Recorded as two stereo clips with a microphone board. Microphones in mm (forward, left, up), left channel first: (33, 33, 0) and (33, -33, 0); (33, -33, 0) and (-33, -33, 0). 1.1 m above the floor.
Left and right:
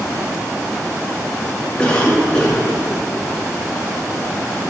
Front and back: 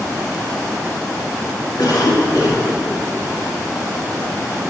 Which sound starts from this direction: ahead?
A cough, at 1.8 s.